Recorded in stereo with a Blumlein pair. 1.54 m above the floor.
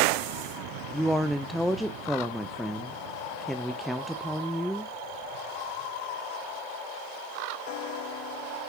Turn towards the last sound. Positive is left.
turn(degrees=0)